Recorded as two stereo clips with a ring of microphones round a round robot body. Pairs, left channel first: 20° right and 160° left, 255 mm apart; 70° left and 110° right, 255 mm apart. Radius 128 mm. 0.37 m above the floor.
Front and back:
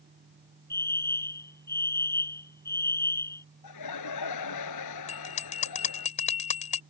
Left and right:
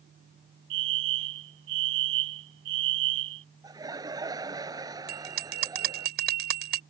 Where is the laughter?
35° right.